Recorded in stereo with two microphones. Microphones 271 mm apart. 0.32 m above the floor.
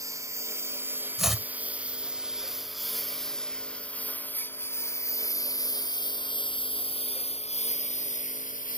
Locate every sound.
0.0 s a lawn mower: 10° right (ahead or behind); by 8.8 s 30° left (ahead or behind)
1.2 s chopping: centre (ahead or behind)